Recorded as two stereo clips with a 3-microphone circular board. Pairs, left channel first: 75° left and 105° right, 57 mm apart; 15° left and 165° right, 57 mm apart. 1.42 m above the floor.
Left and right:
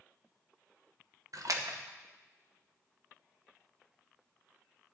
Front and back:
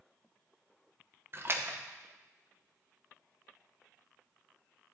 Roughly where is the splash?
Behind right.